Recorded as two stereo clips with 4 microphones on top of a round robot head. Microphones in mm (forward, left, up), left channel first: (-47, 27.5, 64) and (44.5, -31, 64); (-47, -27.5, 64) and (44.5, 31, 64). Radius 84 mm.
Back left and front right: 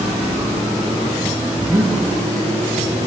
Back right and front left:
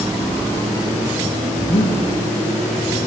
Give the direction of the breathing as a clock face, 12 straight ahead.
3 o'clock.